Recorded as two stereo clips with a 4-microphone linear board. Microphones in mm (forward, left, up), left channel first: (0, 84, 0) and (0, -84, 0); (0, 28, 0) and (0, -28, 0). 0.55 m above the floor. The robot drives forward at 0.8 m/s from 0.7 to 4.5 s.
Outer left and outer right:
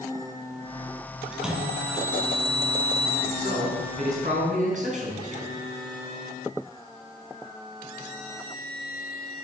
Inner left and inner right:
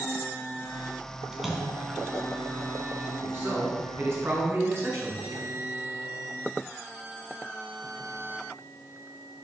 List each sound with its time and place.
1.3 s a splash: 5° right (ahead or behind), 2 m
3.2 s a man speaking: 45° right (ahead or behind), 6 m; by 5.5 s 50° right (ahead or behind), 5 m